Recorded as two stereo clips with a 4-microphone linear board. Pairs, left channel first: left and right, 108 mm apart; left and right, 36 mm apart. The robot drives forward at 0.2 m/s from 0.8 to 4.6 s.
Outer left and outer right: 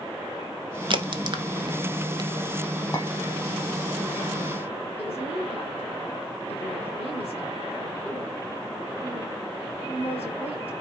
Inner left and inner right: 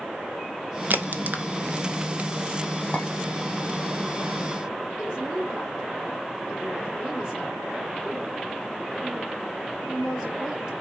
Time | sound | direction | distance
0.9 | a crack | 50° right (ahead or behind) | 1.0 m
2.9 | a clink | 30° left (ahead or behind) | 2.5 m
5.0 | a woman speaking | 15° right (ahead or behind) | 4 m